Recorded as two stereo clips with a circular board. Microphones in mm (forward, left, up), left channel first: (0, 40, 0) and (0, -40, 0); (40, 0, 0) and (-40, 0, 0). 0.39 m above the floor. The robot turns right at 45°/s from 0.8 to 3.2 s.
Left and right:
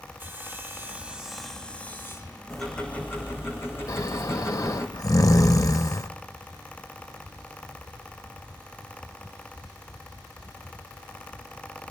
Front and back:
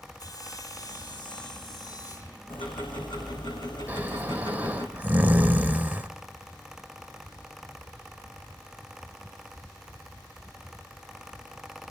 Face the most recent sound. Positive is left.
turn(degrees=115)